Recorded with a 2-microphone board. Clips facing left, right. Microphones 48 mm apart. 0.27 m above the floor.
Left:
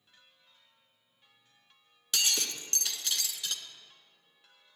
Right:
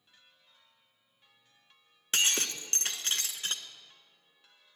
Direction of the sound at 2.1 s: 40° right (ahead or behind).